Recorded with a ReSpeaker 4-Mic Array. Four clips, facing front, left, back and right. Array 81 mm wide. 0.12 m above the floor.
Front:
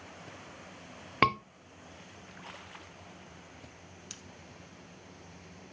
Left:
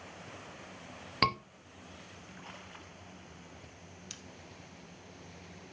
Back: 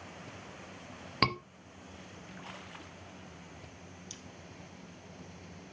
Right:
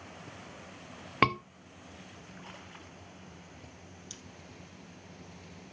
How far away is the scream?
About 1.8 m.